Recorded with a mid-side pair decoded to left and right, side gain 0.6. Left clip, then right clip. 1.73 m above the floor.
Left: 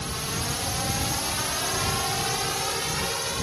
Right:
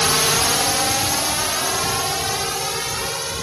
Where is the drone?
70° right; by 3.4 s 20° right.